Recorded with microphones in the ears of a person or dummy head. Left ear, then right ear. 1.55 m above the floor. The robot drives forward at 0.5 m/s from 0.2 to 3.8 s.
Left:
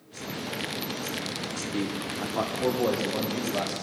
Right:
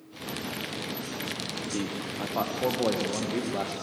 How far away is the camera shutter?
No camera shutter in this recording.